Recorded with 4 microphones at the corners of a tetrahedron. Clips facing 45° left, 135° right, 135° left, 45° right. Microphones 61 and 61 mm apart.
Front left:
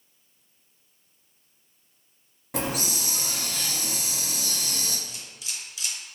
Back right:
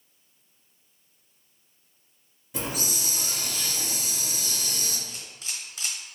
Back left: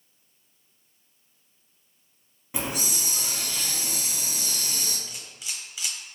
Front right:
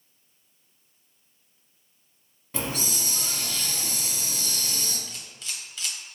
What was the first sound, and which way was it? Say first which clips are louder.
A hiss: front left 3 dB, even; 60° left.